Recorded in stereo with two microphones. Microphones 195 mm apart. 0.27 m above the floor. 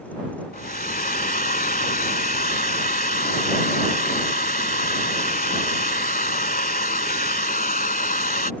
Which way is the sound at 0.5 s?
50° left (ahead or behind).